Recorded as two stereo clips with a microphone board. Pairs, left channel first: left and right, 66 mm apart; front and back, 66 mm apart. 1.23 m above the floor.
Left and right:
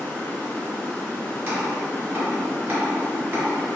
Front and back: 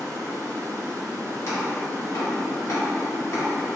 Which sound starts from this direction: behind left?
Running water, at 0.0 s.